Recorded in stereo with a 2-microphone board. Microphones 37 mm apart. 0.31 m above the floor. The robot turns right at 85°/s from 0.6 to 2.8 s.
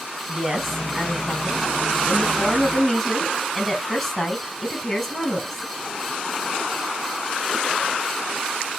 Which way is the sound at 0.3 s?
25° right.